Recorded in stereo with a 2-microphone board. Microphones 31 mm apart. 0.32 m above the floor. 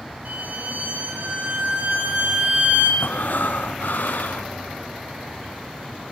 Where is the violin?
60° right (ahead or behind), 4.5 m.